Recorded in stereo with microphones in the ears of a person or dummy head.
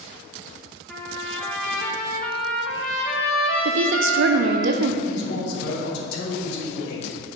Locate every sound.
0.9 s a trumpet: centre (ahead or behind), 0.9 m
3.6 s a woman speaking: 70° right (ahead or behind), 0.6 m
5.0 s a man speaking: 65° left (ahead or behind), 1.3 m